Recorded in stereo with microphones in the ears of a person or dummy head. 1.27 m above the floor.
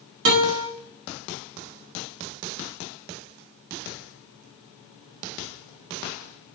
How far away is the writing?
No writing in this recording.